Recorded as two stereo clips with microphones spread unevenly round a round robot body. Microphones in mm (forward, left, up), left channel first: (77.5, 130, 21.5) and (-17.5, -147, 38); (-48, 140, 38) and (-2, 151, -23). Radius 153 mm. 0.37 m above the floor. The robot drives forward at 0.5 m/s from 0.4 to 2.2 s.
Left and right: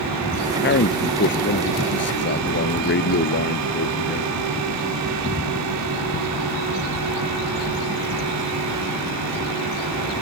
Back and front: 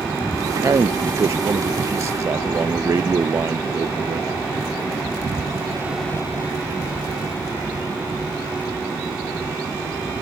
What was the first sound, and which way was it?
A man speaking, 20° left.